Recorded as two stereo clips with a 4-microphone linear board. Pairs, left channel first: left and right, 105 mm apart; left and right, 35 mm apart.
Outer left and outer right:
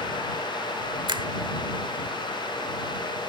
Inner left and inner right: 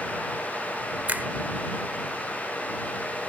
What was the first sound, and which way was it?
A finger snap, 45° right (ahead or behind).